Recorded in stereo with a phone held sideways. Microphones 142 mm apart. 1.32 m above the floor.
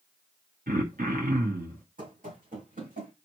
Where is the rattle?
No rattle in this recording.